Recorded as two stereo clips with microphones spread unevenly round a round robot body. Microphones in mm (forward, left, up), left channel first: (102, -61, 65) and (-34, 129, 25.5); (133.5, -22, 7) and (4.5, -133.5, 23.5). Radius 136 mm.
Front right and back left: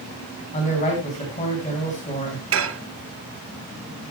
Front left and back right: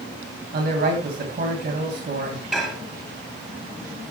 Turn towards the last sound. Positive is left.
turn(degrees=130)